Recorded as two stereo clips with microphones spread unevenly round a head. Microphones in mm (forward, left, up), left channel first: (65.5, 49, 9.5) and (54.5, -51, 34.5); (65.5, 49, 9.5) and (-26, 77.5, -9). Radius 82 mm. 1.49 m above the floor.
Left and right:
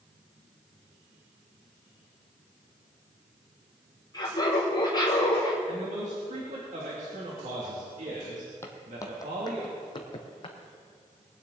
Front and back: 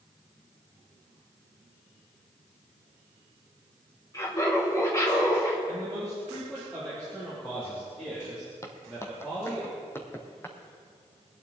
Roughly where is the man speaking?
Right.